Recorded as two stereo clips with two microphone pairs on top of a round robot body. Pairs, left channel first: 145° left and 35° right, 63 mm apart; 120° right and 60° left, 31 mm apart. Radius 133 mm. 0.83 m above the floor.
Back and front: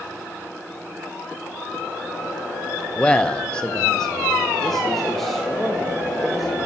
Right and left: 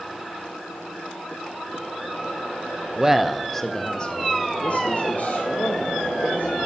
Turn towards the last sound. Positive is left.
turn(degrees=-125)